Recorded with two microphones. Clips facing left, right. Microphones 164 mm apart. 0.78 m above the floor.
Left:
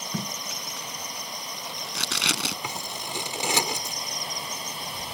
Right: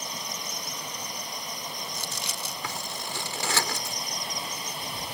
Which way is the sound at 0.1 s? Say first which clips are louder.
Left 4 dB; 85° left.